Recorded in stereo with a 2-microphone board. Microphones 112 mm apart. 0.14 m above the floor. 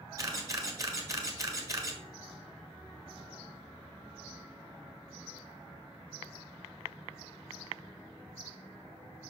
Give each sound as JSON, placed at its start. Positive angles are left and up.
{"t": 0.2, "sound": "a camera shutter", "side_deg": -30, "distance_m": 1.3}